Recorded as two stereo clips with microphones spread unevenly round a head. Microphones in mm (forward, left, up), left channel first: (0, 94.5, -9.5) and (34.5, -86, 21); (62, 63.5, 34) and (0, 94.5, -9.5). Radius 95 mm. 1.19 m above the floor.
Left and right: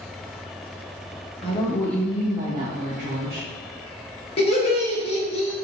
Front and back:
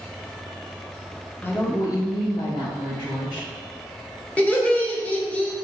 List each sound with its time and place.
1.4 s a woman speaking: 40° left, 0.7 m; by 3.5 s 45° right, 1.0 m
4.4 s laughter: 40° left, 0.9 m